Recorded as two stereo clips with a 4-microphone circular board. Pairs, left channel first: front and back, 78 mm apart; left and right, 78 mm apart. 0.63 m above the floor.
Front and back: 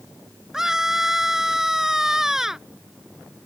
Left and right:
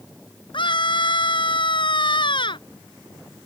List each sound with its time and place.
0.5 s a scream: 95° left